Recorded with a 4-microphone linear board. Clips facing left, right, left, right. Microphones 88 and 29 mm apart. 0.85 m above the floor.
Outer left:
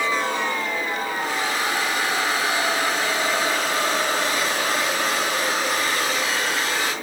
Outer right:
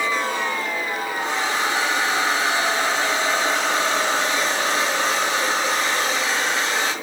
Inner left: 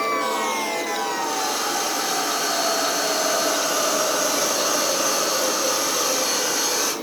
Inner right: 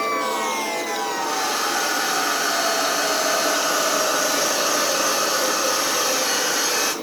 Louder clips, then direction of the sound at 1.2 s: Outer right 4 dB, inner right 1 dB; 25° right (ahead or behind).